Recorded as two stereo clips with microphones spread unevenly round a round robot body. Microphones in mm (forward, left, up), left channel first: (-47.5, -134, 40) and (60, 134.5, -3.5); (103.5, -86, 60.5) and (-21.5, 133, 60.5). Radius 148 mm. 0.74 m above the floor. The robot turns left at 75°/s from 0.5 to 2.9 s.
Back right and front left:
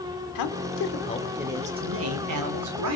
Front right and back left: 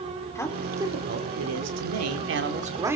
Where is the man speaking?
140° right, 2.5 m; by 3.0 s 40° left, 2.5 m.